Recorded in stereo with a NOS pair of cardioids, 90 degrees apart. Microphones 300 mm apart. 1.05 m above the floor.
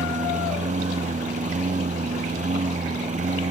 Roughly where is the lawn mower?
Ahead right.